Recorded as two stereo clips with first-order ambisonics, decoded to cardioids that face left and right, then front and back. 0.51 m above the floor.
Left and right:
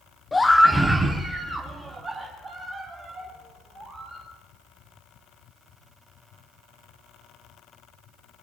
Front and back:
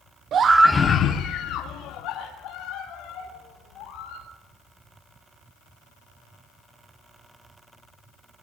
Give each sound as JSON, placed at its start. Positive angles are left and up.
{"t": 0.3, "sound": "a scream", "azimuth_deg": 165, "distance_m": 0.8}